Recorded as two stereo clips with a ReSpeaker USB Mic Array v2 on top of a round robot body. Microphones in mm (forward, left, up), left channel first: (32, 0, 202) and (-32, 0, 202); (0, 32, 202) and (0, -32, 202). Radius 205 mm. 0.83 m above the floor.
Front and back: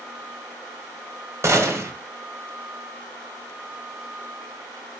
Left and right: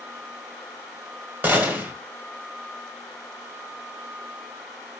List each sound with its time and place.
1.4 s a gunshot: 145° right, 1.3 m